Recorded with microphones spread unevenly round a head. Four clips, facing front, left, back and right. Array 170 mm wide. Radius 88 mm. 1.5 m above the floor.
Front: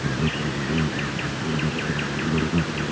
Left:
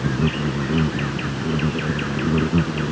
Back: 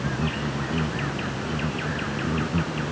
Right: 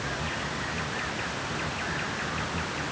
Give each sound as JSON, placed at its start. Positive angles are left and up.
{"t": 0.0, "sound": "an insect", "azimuth_deg": 70}